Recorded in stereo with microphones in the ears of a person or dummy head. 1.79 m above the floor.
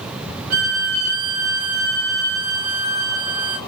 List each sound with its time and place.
0.5 s a violin: 50° right (ahead or behind), 1.2 m